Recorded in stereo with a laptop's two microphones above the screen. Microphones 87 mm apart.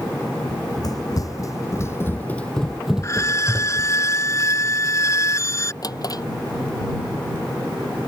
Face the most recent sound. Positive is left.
turn(degrees=45)  # may be behind; listen again after turning